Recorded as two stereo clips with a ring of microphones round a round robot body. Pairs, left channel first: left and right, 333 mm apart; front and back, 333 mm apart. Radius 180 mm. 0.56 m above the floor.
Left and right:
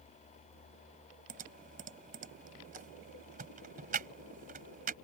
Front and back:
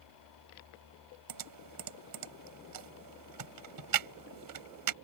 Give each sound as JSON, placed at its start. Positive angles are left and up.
{"t": 1.3, "sound": "typing on a keyboard", "azimuth_deg": -160}